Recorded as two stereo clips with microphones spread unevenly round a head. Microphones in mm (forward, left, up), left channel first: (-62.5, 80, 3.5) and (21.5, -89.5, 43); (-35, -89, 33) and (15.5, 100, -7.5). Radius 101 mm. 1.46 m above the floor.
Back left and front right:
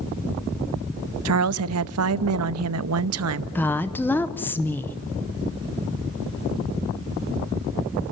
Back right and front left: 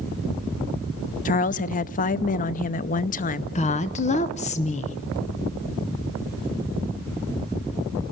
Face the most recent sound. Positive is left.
turn(degrees=-160)